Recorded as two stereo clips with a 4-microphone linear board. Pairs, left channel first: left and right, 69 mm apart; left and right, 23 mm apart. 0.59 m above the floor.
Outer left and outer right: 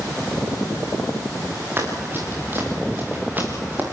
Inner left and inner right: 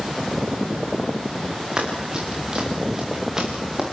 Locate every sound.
1.8 s running footsteps: 30° right (ahead or behind), 7 m; by 3.8 s 20° right (ahead or behind), 5.5 m